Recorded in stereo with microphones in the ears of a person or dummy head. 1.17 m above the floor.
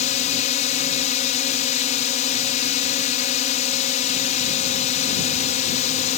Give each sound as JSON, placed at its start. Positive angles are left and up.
{"t": 0.0, "sound": "a drone", "side_deg": 35}